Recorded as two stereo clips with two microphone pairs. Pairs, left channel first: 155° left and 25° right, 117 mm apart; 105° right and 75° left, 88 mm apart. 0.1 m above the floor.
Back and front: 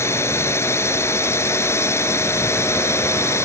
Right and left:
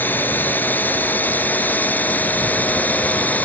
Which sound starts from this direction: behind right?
A drone, at 0.0 s.